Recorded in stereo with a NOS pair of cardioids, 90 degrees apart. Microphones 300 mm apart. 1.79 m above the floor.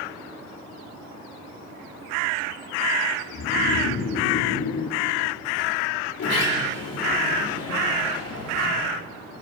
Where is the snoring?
50° left, 6 m.